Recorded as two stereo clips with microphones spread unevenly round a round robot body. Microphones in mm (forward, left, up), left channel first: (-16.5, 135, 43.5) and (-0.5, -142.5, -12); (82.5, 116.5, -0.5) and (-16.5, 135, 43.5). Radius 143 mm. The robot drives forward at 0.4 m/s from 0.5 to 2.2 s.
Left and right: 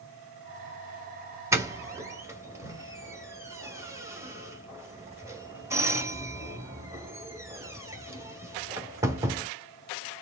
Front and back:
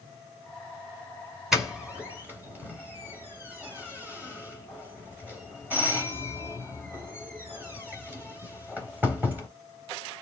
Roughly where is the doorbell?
Ahead right.